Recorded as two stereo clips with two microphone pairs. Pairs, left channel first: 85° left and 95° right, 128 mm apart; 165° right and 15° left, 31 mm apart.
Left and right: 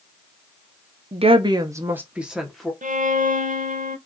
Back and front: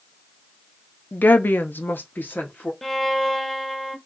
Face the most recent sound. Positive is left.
turn(degrees=-85)